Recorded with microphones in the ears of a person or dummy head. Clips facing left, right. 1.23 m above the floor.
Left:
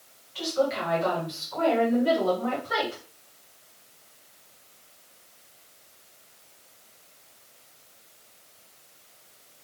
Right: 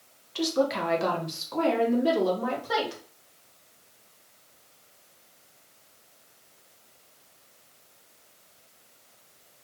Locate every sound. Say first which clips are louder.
0.3 s a woman speaking: right 1 dB; 55° right (ahead or behind), 0.7 m; by 3.0 s 75° right (ahead or behind), 2 m